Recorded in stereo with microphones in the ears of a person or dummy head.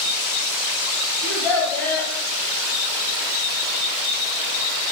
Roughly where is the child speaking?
Centre.